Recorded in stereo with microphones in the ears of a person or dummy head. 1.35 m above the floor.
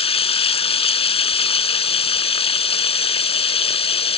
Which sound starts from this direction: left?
Running water, at 0.0 s.